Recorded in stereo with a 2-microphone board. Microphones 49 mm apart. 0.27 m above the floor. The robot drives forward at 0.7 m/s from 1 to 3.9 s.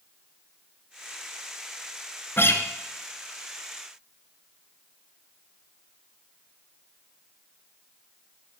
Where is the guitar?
50° left (ahead or behind), 1.7 m; by 2.6 s 55° left (ahead or behind), 1.6 m.